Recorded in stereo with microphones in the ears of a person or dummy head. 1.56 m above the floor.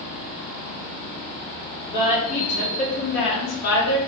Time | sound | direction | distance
1.9 | a woman speaking | 25° left (ahead or behind) | 1.1 m